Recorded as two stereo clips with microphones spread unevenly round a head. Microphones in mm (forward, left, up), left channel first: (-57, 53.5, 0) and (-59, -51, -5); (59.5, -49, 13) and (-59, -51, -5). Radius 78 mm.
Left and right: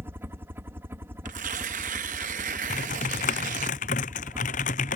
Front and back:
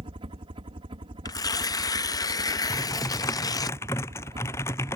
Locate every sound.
0.0 s a helicopter: 155° right
1.2 s tearing paper: 60° right
2.7 s typing on a keyboard: 75° left